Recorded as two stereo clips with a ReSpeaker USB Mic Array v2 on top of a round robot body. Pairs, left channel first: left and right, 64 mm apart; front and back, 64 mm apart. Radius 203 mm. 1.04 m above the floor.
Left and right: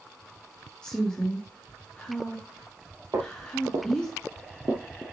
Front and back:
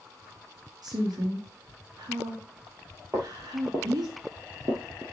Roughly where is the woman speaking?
Behind.